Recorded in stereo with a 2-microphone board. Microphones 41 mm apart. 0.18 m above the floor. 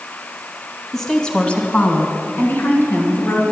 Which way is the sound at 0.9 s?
5° left (ahead or behind).